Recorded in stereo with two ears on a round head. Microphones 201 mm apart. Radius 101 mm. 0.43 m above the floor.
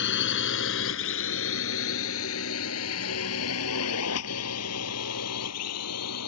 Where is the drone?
50° left (ahead or behind); by 6.3 s 75° left (ahead or behind).